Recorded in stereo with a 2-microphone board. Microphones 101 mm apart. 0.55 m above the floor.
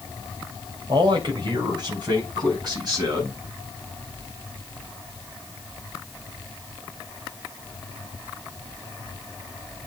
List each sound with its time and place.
0.9 s a man speaking: 50° right (ahead or behind), 3 m; by 3.4 s 40° right (ahead or behind), 6 m